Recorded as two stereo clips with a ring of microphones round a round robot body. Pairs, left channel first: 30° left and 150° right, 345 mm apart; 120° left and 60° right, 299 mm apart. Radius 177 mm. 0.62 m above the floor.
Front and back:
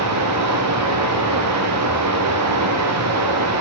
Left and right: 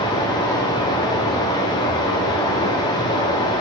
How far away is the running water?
About 0.8 m.